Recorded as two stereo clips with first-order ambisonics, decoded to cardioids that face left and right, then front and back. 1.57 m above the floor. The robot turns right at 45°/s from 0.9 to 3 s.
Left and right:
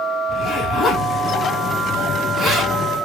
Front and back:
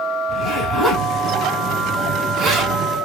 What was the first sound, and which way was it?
A zipper, 115° left.